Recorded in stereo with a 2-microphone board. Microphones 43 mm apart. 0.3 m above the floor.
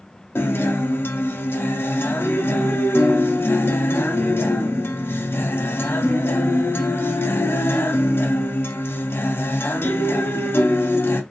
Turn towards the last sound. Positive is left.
turn(degrees=65)  # may be behind; listen again after turning